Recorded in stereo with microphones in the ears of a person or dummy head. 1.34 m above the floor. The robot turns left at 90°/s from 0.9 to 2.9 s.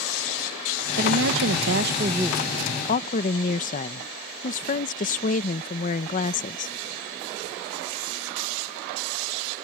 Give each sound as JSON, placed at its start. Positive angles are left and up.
{"t": 1.0, "sound": "a woman speaking", "azimuth_deg": -45}